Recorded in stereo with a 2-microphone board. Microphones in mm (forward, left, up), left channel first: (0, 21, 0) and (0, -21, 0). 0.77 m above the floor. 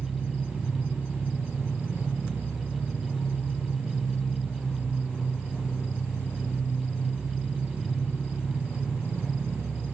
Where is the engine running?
55° right (ahead or behind), 1.1 m.